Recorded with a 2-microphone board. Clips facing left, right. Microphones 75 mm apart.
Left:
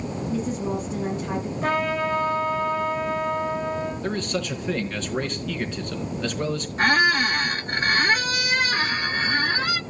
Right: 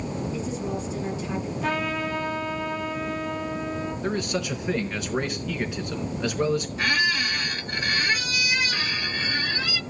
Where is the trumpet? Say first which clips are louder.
Left 4 dB; 40° left (ahead or behind), 9.5 m.